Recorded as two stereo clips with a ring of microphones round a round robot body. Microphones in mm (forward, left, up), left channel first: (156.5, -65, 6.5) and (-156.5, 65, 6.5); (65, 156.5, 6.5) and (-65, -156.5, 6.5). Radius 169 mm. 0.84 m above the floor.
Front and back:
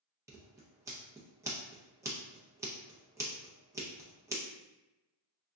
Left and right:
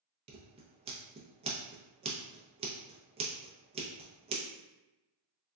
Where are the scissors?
140° right, 0.5 m.